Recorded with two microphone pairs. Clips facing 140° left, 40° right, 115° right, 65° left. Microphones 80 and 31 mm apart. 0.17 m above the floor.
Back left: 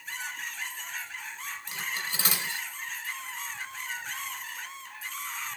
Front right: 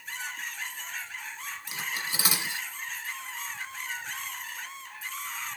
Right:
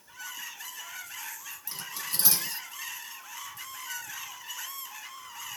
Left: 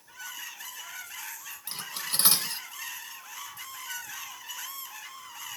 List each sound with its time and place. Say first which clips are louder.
1.7 s cutlery clinking: front right 1 dB, left 2 dB; 35° left, 1.2 m